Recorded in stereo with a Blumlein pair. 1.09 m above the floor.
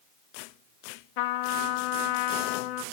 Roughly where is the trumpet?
Ahead left.